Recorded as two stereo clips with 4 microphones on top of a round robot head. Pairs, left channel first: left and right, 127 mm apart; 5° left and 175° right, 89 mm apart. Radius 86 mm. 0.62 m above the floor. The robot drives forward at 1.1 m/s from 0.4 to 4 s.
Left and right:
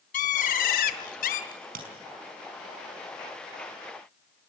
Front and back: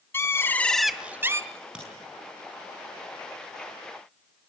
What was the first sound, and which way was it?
A bird, 70° left.